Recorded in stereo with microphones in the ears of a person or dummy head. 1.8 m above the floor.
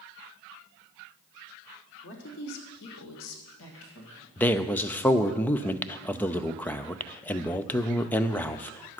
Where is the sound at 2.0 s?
55° left (ahead or behind), 2 m; by 4.3 s 70° left (ahead or behind), 3.5 m.